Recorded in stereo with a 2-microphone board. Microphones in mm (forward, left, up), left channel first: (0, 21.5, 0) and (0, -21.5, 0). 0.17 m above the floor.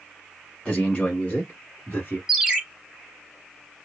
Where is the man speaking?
20° left (ahead or behind), 1.1 m; by 2.2 s 40° left (ahead or behind), 1.4 m.